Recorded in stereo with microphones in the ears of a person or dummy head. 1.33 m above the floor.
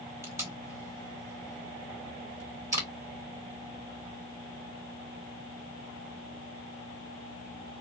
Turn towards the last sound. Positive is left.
turn(degrees=-15)  # may be behind; listen again after turning